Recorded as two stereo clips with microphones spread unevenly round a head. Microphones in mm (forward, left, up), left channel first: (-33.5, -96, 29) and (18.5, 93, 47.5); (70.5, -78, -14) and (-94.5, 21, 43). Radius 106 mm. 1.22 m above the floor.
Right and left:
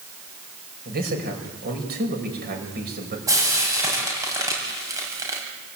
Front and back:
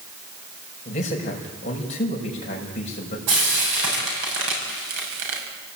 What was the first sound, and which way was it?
A man speaking, 30° left.